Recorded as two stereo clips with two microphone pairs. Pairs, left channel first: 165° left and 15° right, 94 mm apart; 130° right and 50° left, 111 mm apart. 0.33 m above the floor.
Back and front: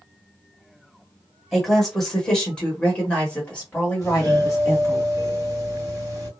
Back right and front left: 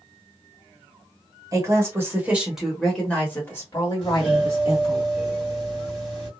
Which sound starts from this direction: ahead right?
A doorbell, at 4.0 s.